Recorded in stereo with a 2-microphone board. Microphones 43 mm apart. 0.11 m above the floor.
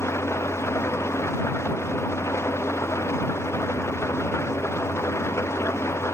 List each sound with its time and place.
0.0 s an engine running: 85° left